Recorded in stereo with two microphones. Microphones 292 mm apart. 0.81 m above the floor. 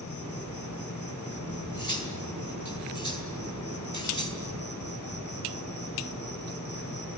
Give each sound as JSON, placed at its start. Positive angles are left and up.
{"t": 0.0, "sound": "an insect", "side_deg": 80, "distance_m": 4.0}
{"t": 1.5, "sound": "cutlery clinking", "side_deg": -85, "distance_m": 3.5}